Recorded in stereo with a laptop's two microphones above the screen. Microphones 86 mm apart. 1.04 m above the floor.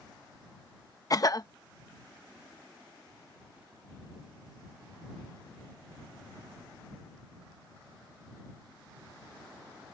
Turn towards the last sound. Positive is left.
turn(degrees=45)  # may be behind; listen again after turning